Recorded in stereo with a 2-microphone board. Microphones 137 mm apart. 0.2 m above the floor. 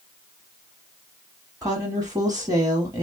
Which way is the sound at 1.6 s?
25° right (ahead or behind).